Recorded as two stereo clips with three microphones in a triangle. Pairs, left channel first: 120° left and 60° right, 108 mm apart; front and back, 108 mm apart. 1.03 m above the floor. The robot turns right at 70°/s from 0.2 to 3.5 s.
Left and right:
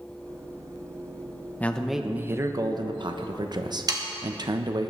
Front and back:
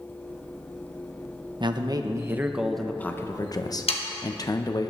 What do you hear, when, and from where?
1.6 s a man speaking: 170° right, 0.9 m; by 4.9 s 35° right, 0.9 m
3.9 s sawing: 10° right, 1.6 m